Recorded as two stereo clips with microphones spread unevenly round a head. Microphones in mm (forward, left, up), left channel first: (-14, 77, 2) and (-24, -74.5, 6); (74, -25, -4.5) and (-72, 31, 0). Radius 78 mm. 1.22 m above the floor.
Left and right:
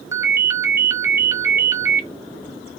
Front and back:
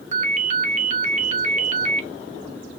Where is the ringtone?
165° right, 0.8 m.